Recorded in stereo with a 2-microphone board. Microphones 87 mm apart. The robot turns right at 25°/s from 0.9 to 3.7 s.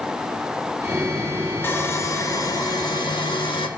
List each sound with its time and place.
1.6 s sawing: 25° left, 2 m; by 3.7 s 75° left, 2 m